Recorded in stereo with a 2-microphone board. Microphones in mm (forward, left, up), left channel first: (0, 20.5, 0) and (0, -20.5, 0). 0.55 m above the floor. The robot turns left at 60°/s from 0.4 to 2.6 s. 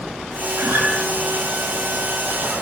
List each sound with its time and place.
0.6 s a guitar: 70° right (ahead or behind), 6.5 m; by 0.9 s 50° right (ahead or behind), 6.5 m